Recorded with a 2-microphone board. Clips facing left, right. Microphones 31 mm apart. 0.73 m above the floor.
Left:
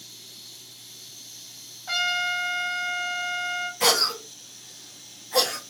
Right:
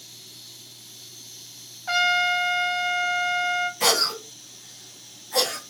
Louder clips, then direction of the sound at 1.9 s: Right 4 dB; 20° right (ahead or behind).